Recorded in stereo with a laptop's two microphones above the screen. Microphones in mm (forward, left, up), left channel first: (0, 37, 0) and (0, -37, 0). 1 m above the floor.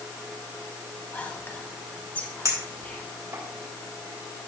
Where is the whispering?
20° left (ahead or behind), 1.2 m.